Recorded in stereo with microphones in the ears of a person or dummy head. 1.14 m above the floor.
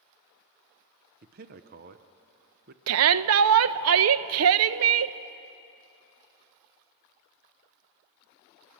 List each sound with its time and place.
1.2 s a man speaking: 40° right (ahead or behind), 0.7 m
2.9 s a shout: 75° right (ahead or behind), 0.6 m